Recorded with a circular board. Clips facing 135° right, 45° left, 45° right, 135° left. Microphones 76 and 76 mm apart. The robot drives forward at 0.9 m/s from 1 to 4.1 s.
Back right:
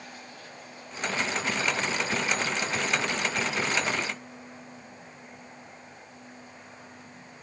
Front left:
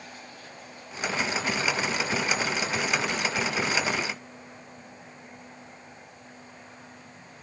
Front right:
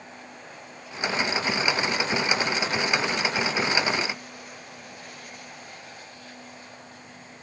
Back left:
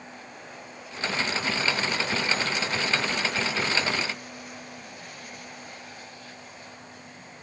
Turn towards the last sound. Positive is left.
No sound to turn to.